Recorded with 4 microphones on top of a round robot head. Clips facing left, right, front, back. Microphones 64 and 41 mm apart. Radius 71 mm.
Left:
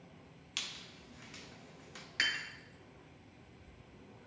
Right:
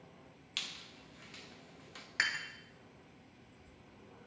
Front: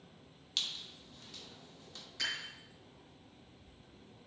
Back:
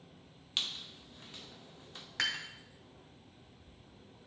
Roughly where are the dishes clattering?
Behind right.